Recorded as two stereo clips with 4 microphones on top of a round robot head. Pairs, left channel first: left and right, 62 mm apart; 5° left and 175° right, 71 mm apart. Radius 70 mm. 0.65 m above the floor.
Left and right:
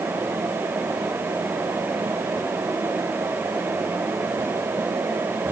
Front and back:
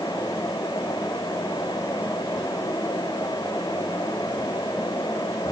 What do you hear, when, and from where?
Only background noise.